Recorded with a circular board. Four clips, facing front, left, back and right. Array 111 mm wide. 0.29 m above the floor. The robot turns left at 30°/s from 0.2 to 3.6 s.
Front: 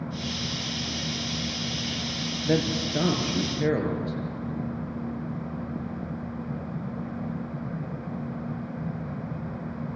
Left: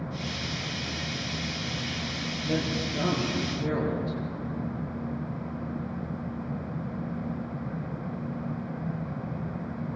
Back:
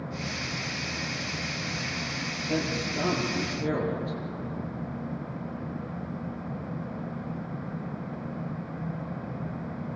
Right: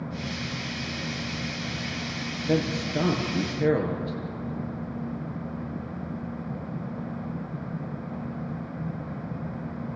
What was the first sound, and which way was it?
A man speaking, 15° right.